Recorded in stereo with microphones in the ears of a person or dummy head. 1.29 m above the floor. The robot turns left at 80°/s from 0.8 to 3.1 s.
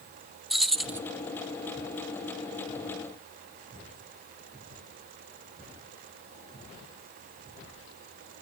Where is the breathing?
I don't hear breathing.